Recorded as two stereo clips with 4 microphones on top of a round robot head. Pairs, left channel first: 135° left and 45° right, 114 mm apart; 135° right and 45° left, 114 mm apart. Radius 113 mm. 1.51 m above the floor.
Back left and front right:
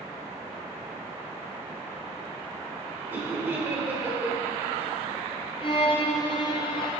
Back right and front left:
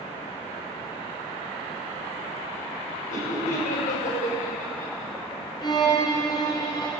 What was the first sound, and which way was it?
Laughter, 120° right.